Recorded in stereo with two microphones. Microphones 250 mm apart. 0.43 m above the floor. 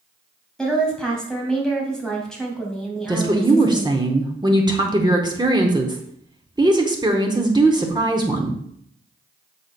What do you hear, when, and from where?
0.6 s a woman speaking: 5° left (ahead or behind), 2 m
3.1 s a woman speaking: 15° right (ahead or behind), 0.9 m